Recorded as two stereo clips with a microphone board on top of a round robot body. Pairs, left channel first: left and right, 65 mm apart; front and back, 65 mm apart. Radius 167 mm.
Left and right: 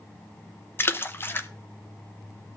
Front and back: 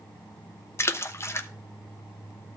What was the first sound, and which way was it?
A splash, 40° left.